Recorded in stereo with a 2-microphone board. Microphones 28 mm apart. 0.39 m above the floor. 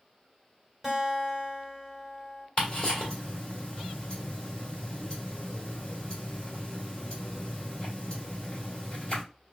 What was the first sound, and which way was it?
A guitar, 10° right (ahead or behind).